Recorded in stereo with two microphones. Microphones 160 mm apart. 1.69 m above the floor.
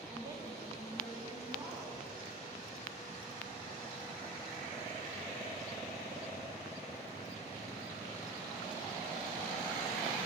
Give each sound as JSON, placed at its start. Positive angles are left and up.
{"t": 0.1, "sound": "a woman speaking", "side_deg": -20, "distance_m": 2.5}